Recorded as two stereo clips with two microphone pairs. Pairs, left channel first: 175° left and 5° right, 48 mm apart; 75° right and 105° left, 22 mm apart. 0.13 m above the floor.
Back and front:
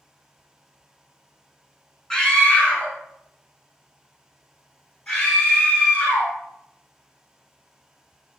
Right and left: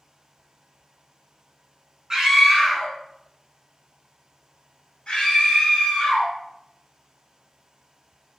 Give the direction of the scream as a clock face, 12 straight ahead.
8 o'clock.